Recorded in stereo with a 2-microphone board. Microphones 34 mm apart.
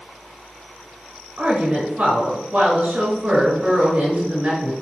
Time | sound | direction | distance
1.4 | a woman speaking | 40° right (ahead or behind) | 6.5 m